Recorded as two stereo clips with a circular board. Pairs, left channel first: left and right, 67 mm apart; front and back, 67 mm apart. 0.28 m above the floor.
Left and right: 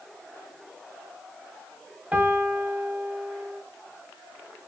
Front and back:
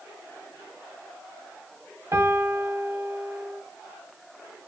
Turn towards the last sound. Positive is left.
turn(degrees=-155)